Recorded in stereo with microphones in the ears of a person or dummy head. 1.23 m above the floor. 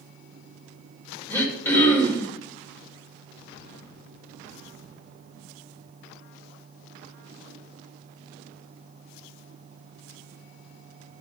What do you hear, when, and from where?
1.3 s throat clearing: 15° left (ahead or behind), 2.5 m